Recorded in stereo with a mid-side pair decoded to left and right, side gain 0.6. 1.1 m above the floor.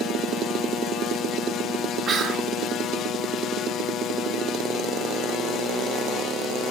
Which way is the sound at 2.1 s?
35° right.